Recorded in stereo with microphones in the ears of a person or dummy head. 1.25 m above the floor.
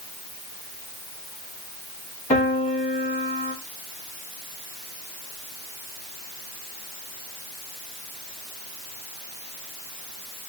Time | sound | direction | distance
2.3 | a piano | 30° left (ahead or behind) | 1.6 m